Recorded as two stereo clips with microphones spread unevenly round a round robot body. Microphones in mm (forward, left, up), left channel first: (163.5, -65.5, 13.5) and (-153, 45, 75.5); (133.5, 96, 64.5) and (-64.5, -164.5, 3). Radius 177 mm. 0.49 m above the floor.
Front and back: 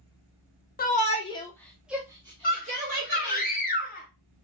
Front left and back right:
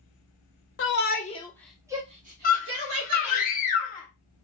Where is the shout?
10° left, 0.9 m; by 3.4 s 135° right, 1.4 m.